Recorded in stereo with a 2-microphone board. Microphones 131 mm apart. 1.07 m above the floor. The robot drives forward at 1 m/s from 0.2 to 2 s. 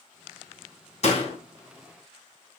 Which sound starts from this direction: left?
A door slam, at 1.0 s.